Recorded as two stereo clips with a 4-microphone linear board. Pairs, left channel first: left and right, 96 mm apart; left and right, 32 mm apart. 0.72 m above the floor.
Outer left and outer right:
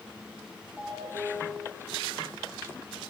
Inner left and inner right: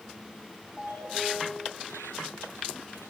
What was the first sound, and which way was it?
A ringtone, 80° right.